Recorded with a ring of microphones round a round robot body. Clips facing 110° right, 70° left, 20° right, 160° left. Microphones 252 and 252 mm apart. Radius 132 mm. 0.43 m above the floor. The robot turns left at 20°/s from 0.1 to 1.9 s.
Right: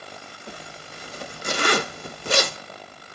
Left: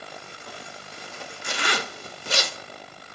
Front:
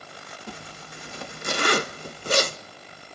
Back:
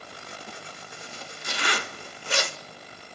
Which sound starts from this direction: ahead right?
A zipper, at 0.5 s.